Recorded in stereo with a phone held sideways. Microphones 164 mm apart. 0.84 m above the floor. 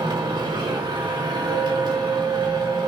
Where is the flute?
85° left, 5.5 m.